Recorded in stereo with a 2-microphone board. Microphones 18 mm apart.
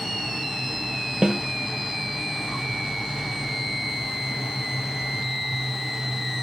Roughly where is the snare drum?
Right.